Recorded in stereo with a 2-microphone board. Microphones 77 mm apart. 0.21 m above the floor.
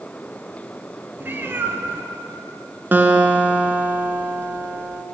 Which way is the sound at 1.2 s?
30° right (ahead or behind).